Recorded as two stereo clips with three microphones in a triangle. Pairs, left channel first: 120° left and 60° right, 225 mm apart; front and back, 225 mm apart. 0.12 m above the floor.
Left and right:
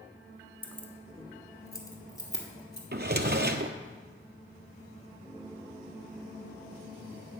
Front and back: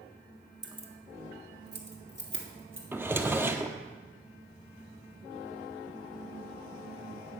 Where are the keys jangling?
170° right, 0.8 m; by 2.8 s 165° right, 2.0 m.